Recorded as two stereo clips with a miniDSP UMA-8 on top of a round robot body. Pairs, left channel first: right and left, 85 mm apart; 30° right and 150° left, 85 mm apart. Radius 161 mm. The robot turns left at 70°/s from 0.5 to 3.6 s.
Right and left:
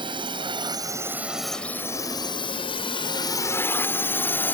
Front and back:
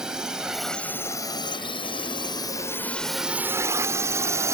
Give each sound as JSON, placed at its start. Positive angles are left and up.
{"t": 0.0, "sound": "a drone", "azimuth_deg": 70}